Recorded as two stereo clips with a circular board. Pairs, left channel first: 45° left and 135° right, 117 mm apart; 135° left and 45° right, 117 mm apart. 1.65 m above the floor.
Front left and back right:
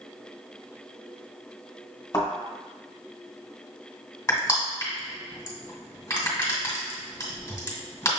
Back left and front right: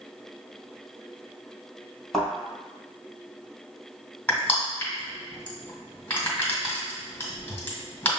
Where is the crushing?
80° left, 1.7 m.